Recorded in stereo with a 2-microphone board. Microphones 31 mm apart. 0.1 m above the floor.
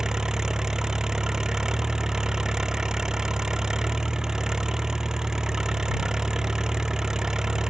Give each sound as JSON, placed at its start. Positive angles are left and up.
{"t": 0.0, "sound": "an engine running", "side_deg": -20}